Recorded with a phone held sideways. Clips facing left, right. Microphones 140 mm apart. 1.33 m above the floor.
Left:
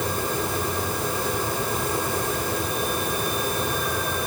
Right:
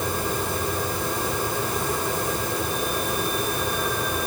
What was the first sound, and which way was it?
Only background noise.